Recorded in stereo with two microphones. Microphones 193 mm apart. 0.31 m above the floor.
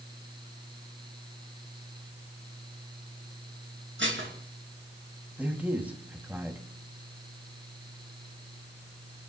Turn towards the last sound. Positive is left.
turn(degrees=-10)  # may be behind; listen again after turning